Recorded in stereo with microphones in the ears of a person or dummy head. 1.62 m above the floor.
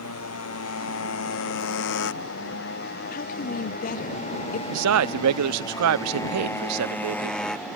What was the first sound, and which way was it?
A motorcycle, 80° left.